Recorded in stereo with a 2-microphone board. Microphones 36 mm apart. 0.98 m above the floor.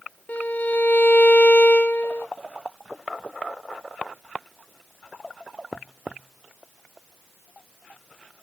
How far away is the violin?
About 0.9 m.